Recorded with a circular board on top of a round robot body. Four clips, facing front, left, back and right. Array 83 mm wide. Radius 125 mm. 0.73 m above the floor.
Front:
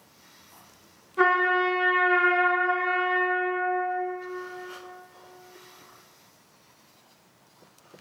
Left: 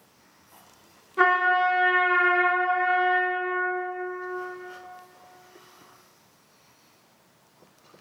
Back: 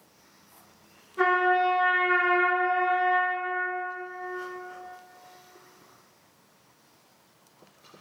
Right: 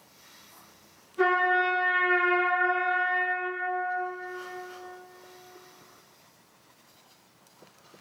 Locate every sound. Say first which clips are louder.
1.2 s a trumpet: left 3 dB, even; 75° left, 1.9 m